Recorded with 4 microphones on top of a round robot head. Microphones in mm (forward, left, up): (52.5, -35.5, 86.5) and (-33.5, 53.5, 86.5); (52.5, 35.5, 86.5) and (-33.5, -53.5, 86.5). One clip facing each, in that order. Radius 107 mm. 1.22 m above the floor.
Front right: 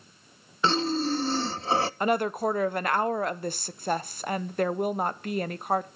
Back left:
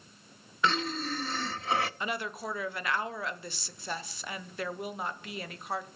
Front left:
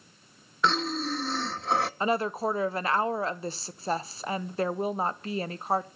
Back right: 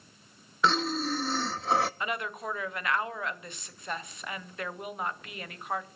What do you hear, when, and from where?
0.6 s breathing: 45° right, 0.6 m
2.0 s a woman speaking: 10° right, 0.8 m